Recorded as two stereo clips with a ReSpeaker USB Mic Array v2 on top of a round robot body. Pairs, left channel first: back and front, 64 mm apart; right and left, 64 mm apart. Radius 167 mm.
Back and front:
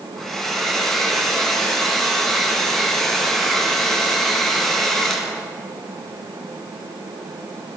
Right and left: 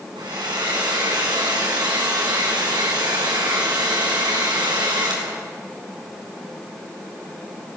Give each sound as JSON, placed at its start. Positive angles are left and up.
{"t": 0.2, "sound": "a hair dryer", "azimuth_deg": 95, "distance_m": 5.5}